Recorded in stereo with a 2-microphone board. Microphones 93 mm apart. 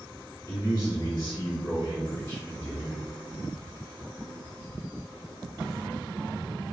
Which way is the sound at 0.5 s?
50° left (ahead or behind).